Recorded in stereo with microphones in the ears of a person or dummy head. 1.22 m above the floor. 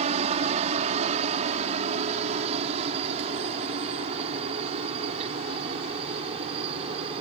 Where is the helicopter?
40° right (ahead or behind); by 7.2 s 35° right (ahead or behind).